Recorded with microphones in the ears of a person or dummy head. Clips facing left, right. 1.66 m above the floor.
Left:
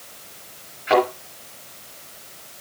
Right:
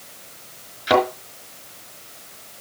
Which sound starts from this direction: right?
A thud, at 0.9 s.